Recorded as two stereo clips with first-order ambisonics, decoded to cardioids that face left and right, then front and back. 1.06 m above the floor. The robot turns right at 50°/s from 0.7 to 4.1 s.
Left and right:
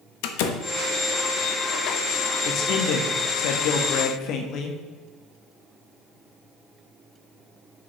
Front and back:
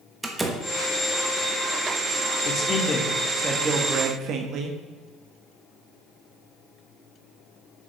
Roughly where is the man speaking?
Ahead left.